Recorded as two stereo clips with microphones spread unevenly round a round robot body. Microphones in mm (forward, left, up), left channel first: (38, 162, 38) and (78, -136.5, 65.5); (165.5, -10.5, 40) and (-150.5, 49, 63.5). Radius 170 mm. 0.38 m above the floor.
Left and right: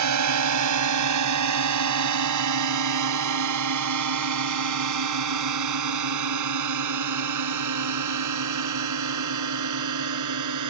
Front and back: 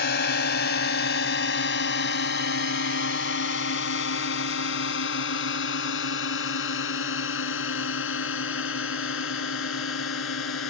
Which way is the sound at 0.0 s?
65° right.